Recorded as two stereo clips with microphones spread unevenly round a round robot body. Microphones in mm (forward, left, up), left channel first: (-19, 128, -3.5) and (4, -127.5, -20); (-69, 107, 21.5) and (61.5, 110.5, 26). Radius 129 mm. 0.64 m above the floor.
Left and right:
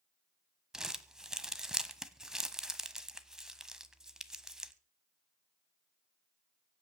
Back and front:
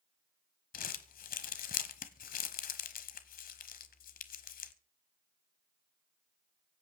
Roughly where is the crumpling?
Behind.